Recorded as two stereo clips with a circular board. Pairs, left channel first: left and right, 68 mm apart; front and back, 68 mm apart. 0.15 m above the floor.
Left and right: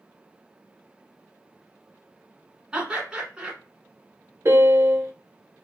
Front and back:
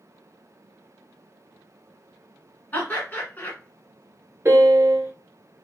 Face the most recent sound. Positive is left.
turn(degrees=-130)